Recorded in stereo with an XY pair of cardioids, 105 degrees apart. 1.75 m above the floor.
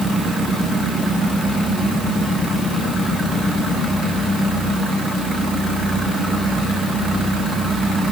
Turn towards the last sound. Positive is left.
No sound to turn to.